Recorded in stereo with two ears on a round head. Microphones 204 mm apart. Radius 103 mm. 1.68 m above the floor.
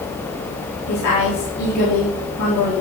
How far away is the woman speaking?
About 3.5 m.